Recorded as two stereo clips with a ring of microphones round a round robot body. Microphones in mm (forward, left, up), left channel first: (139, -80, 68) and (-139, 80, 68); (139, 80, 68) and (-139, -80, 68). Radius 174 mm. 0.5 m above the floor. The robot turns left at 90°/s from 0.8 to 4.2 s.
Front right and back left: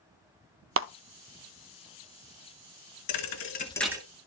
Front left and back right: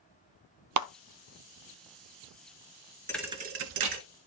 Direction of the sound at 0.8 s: 165° right.